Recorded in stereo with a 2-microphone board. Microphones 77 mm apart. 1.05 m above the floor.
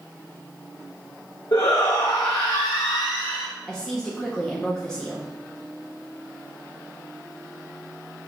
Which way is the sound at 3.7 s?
5° left (ahead or behind).